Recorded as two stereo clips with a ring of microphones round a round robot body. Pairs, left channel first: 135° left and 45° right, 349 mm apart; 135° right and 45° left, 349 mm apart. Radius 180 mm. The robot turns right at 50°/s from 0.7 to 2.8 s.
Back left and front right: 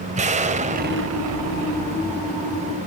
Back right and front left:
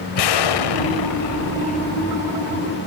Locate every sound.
0.1 s an explosion: 115° right, 1.8 m; by 2.9 s 10° right, 1.8 m